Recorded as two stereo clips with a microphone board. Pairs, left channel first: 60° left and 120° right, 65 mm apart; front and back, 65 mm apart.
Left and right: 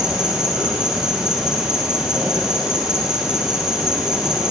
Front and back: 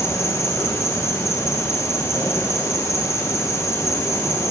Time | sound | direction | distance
0.0 | an insect | 40° right | 1.8 m